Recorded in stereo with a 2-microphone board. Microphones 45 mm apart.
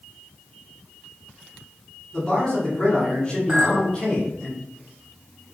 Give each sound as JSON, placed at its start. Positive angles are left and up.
{"t": 2.1, "sound": "a man speaking", "side_deg": 20, "distance_m": 1.8}
{"t": 3.5, "sound": "a clink", "side_deg": -10, "distance_m": 1.6}